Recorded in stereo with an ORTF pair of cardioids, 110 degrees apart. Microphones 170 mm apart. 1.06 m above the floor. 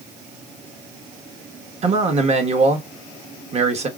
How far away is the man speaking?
About 1.3 m.